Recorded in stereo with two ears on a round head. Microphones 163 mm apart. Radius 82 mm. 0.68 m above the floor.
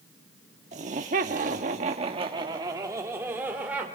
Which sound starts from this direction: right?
Laughter, at 0.7 s.